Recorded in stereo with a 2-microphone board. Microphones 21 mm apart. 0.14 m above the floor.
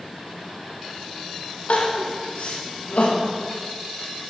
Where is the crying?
60° left (ahead or behind), 6.5 m.